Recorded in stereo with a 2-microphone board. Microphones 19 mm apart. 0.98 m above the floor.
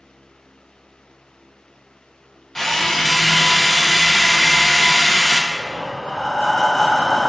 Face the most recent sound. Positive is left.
turn(degrees=60)  # may be behind; listen again after turning